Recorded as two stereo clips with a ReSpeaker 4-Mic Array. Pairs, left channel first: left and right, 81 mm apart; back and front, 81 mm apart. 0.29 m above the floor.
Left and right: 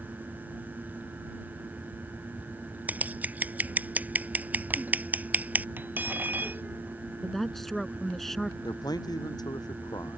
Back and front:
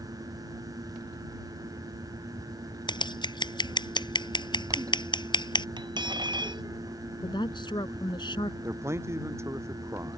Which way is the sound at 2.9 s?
160° right.